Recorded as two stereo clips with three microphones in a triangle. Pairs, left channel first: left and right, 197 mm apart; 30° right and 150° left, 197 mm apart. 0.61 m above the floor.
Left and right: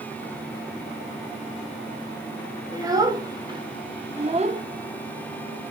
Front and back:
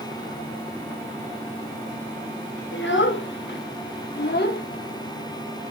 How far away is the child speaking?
About 1.7 m.